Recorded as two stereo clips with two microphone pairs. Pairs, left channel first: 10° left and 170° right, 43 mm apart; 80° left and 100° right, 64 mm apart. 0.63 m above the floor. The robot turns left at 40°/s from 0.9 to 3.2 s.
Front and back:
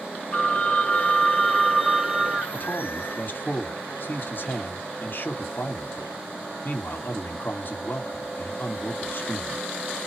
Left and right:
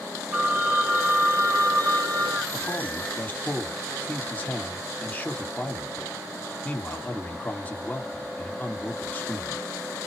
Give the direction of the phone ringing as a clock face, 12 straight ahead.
1 o'clock.